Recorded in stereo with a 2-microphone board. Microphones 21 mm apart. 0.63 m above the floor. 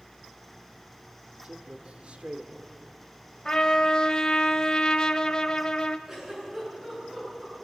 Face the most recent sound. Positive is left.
turn(degrees=-20)  # may be behind; listen again after turning